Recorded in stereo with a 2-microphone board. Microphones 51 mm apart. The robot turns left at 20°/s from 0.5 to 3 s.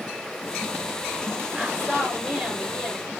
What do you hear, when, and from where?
1.5 s a woman speaking: 10° right (ahead or behind), 3.5 m; by 3.1 s 20° left (ahead or behind), 3.5 m